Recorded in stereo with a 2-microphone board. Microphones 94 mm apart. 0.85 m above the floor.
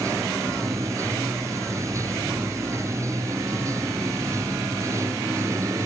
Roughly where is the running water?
Right.